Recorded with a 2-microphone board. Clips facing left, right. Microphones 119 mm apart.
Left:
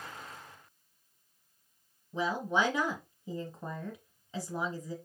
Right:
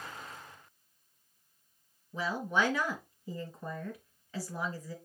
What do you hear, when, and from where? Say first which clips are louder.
2.1 s a woman speaking: left 1 dB; 20° left (ahead or behind), 1.6 m